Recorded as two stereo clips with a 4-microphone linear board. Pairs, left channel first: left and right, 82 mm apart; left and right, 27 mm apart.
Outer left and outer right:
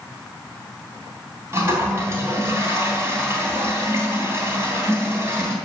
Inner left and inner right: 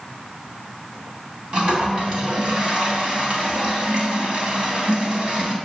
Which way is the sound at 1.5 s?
30° right (ahead or behind).